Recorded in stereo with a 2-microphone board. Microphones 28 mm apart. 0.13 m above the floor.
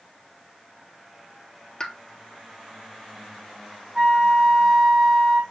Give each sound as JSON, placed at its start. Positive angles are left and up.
{"t": 1.8, "sound": "a pop", "side_deg": 25, "distance_m": 1.0}
{"t": 4.0, "sound": "a flute", "side_deg": -15, "distance_m": 4.5}